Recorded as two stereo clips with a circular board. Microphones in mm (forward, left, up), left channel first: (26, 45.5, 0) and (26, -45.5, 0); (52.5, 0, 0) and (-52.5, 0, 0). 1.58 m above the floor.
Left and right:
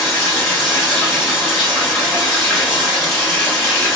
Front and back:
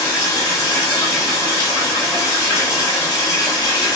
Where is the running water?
25° left, 1.6 m.